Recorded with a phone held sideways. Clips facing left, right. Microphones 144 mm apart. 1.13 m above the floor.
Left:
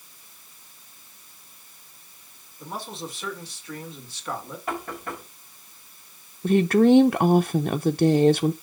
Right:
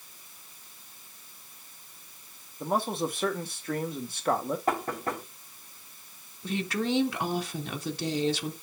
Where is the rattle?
I don't hear a rattle.